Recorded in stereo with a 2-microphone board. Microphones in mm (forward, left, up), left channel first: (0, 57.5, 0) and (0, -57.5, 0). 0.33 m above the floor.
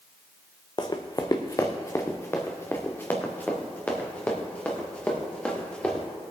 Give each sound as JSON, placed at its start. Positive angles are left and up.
{"t": 0.8, "sound": "running footsteps", "side_deg": 40, "distance_m": 1.0}